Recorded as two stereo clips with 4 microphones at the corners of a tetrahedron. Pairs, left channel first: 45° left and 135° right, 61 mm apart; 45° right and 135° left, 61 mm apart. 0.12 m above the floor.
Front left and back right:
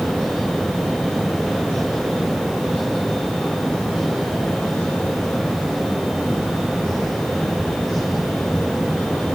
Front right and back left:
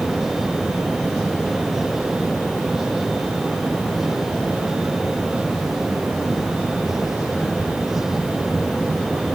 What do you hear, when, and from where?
Only background noise.